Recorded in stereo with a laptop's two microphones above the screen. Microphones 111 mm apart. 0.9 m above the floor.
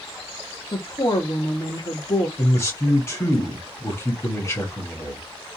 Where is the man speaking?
25° left (ahead or behind), 1.5 m.